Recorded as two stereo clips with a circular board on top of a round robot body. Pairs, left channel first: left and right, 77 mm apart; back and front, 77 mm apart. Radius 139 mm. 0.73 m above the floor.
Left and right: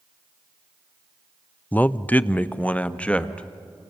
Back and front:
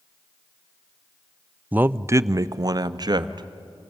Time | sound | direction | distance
1.7 | a man speaking | 50° left | 0.7 m